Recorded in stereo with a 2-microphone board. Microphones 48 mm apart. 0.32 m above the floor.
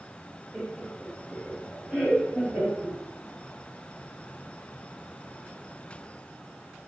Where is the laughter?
10° right (ahead or behind), 1.1 m; by 3.0 s 5° right (ahead or behind), 1.5 m.